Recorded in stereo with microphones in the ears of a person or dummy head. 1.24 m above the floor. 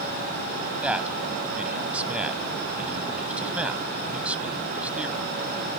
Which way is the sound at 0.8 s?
10° right (ahead or behind).